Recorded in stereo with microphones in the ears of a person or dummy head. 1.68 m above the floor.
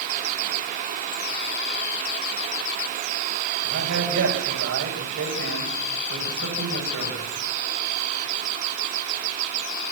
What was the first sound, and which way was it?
A man speaking, 65° right (ahead or behind).